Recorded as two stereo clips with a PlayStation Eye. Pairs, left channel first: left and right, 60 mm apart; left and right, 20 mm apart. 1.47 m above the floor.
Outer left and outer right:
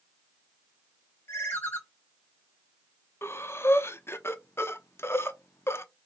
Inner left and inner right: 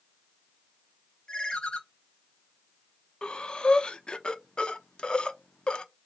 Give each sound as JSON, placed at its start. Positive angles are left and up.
{"t": 1.3, "sound": "a ringtone", "side_deg": 35, "distance_m": 1.1}
{"t": 3.2, "sound": "breathing", "side_deg": 45, "distance_m": 0.5}